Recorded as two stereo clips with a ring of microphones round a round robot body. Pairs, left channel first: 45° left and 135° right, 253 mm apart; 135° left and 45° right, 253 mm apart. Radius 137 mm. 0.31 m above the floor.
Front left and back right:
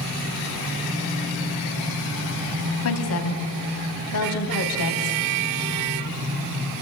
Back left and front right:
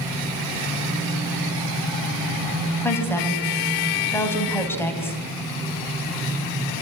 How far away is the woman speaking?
About 3 m.